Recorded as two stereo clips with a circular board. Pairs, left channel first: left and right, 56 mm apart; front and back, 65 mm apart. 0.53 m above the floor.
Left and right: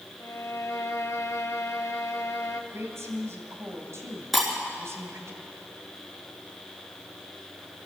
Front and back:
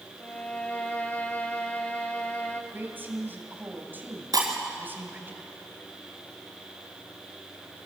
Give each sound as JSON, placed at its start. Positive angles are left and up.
{"t": 0.2, "sound": "a violin", "azimuth_deg": 65, "distance_m": 1.4}
{"t": 2.7, "sound": "a woman speaking", "azimuth_deg": -120, "distance_m": 3.5}
{"t": 4.3, "sound": "breaking glass", "azimuth_deg": 180, "distance_m": 4.0}